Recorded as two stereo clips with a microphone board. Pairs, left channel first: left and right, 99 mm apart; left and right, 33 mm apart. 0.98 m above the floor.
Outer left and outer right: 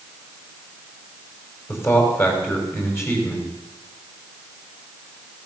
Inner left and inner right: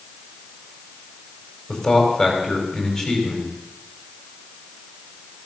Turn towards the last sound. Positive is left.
turn(degrees=25)  # may be behind; listen again after turning